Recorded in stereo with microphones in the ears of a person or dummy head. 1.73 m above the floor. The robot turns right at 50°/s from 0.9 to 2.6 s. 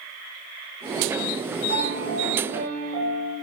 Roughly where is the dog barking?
I don't hear a dog barking.